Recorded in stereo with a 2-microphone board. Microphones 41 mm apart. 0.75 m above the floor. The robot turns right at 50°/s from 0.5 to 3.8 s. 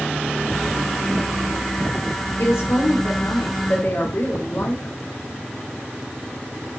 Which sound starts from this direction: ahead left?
A woman speaking, at 2.4 s.